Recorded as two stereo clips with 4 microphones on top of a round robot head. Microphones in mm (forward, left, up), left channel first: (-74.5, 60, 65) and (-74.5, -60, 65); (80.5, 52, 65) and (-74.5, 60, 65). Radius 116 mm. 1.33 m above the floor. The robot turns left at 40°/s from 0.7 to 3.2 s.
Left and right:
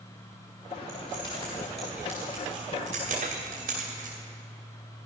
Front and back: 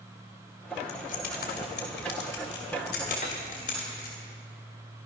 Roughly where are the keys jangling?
Ahead left.